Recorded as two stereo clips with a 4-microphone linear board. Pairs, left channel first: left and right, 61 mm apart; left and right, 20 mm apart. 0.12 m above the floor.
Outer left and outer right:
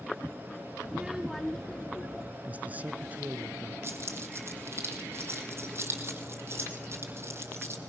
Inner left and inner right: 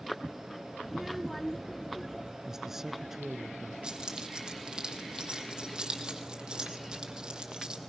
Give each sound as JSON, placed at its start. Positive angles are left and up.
{"t": 0.8, "sound": "a child speaking", "side_deg": -15, "distance_m": 0.9}
{"t": 2.5, "sound": "a man speaking", "side_deg": -25, "distance_m": 1.1}
{"t": 3.8, "sound": "keys jangling", "side_deg": -40, "distance_m": 3.0}